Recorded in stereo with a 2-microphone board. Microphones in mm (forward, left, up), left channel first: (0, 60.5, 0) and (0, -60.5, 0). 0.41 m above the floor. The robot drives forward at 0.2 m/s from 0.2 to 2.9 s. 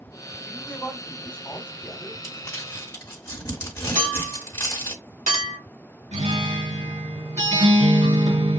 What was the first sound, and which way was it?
A man speaking, 15° left (ahead or behind).